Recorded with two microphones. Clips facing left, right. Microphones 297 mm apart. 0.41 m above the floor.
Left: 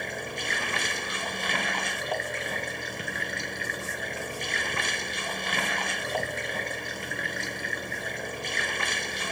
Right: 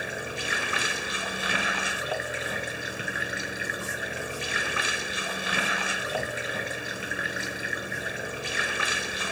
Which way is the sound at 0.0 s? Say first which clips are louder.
Right 1 dB; 5° right (ahead or behind).